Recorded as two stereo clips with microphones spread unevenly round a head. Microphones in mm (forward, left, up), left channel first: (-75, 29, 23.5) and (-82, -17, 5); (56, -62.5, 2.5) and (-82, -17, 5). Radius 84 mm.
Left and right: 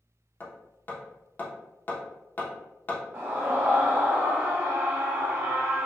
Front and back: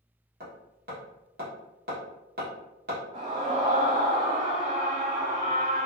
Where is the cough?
I don't hear a cough.